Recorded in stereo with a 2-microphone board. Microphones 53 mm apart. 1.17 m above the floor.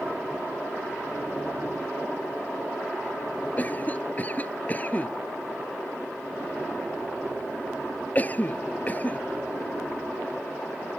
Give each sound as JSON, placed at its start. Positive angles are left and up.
{"t": 3.6, "sound": "a cough", "side_deg": 30}